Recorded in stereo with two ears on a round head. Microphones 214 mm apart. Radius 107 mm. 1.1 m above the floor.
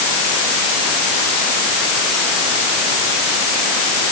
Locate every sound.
Only background noise.